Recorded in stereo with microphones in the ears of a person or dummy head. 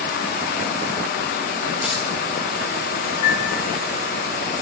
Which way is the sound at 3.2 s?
80° left.